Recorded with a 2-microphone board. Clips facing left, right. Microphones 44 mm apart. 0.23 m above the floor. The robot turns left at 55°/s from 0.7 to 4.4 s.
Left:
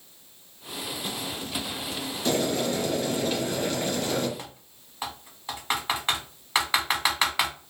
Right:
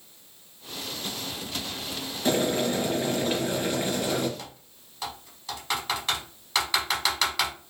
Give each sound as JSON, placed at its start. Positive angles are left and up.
{"t": 2.2, "sound": "boiling", "azimuth_deg": -55, "distance_m": 1.0}
{"t": 4.4, "sound": "typing on a keyboard", "side_deg": 25, "distance_m": 0.8}